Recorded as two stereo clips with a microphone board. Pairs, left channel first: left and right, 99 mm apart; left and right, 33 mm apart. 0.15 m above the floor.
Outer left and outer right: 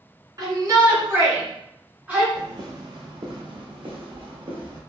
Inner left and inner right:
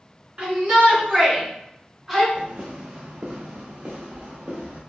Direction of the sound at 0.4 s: 40° right (ahead or behind).